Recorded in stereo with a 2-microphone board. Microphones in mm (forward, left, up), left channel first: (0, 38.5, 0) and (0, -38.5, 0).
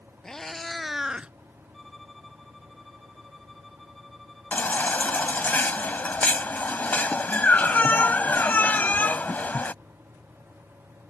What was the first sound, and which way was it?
A cat meowing, 5° left (ahead or behind).